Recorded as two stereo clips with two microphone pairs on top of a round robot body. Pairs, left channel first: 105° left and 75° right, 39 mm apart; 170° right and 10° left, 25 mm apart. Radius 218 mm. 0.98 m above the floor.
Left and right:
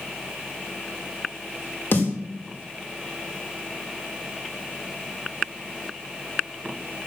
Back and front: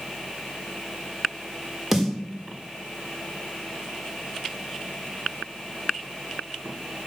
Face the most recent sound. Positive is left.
turn(degrees=85)